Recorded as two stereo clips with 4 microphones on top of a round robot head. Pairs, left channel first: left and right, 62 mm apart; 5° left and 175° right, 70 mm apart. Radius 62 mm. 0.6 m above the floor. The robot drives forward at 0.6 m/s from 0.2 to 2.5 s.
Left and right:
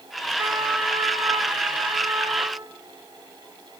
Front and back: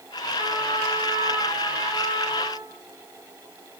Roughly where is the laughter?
I don't hear laughter.